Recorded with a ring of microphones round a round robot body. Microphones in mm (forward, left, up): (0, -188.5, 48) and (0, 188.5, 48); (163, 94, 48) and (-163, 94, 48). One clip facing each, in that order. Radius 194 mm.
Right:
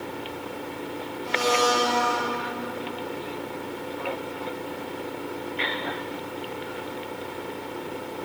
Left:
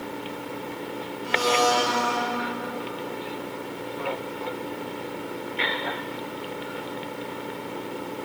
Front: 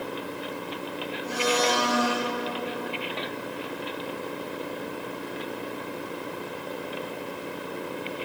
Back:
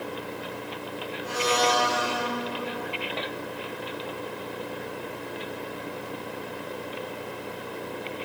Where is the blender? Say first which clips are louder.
Even, even; 155° left, 2 m.